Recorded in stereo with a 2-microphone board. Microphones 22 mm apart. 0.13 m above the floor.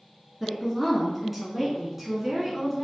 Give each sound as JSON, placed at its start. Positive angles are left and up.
{"t": 0.4, "sound": "a woman speaking", "side_deg": -5, "distance_m": 1.9}